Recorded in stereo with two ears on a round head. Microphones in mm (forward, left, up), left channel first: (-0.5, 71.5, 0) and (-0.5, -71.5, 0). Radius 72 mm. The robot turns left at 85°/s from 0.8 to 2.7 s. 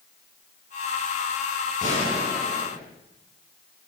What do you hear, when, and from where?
1.8 s a gunshot: 50° left, 8 m; by 2.8 s 25° right, 8 m